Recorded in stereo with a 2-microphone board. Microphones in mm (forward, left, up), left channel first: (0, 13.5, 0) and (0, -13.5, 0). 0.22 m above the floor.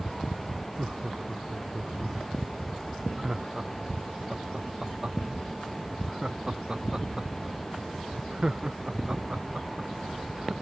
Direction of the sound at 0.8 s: 35° right (ahead or behind).